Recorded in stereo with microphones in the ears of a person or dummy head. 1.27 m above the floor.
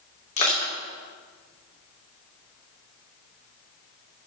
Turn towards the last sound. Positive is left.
turn(degrees=40)  # may be behind; listen again after turning